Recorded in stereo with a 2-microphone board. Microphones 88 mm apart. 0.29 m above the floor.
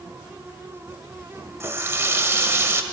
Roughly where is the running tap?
Right.